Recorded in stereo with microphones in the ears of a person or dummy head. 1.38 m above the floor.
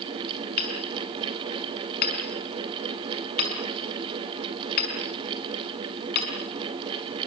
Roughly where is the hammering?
Left.